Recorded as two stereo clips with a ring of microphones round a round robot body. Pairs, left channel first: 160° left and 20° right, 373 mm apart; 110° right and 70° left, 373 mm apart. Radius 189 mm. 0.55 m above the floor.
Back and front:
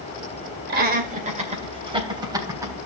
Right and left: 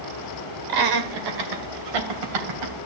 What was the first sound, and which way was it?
Laughter, 40° left.